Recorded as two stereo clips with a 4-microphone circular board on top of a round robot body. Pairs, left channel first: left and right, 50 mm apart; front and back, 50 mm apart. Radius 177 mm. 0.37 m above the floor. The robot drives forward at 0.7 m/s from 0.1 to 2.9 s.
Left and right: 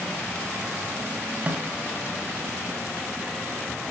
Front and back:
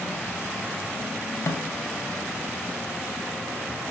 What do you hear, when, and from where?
1.5 s a snare drum: 30° right, 2 m; by 1.7 s 35° right, 2 m